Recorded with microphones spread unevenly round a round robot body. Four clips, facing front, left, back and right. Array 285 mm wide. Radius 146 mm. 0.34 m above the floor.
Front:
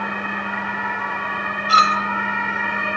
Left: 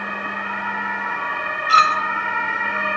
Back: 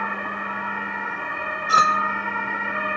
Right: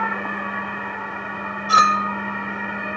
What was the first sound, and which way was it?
A clink, 130° right.